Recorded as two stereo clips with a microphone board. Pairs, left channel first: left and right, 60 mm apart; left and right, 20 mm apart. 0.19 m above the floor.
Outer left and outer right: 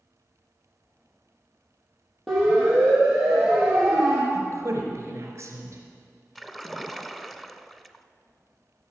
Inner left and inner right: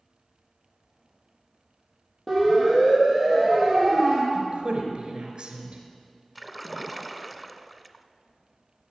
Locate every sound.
2.3 s a siren: centre (ahead or behind), 5 m; by 4.2 s 5° right (ahead or behind), 6 m
4.3 s a woman speaking: 45° right (ahead or behind), 3 m
6.3 s a splash: 5° left (ahead or behind), 0.6 m